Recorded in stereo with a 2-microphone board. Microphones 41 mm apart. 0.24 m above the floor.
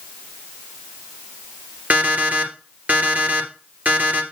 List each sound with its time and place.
1.9 s an alarm clock: 40° right (ahead or behind), 2.5 m